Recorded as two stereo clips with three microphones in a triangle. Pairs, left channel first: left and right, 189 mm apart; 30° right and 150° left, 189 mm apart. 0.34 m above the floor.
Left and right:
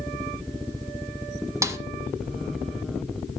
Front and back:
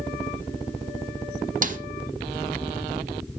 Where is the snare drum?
165° right, 0.8 m.